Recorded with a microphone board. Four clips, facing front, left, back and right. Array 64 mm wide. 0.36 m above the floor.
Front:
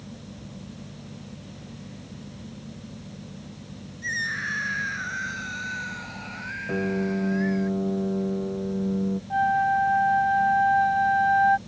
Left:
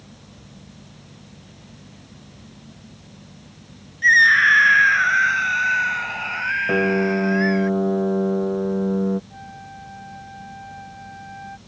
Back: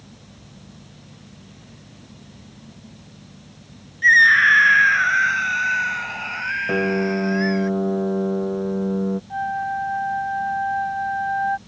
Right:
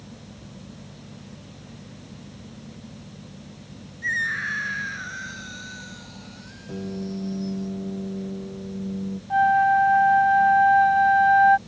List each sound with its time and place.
4.0 s a scream: 150° left; by 7.7 s 110° left
6.7 s a piano: 125° left
9.3 s a flute: 80° right